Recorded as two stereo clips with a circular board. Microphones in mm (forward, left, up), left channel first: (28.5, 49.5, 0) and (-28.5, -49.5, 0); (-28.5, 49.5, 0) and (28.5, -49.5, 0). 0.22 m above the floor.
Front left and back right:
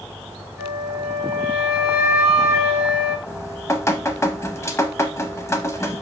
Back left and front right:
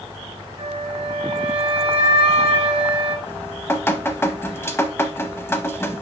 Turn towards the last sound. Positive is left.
turn(degrees=85)